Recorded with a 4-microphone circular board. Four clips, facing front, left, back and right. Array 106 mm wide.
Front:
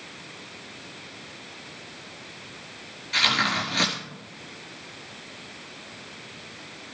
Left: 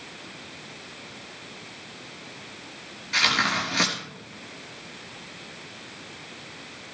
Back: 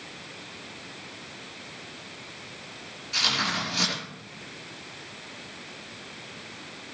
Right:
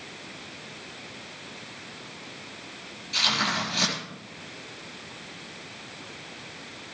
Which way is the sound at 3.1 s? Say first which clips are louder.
Left 3 dB, front 4 dB; 65° left.